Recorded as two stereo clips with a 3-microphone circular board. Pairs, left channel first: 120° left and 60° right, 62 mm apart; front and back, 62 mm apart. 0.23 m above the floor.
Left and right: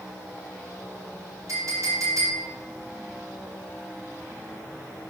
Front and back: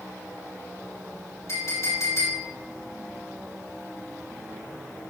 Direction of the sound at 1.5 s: 35° right.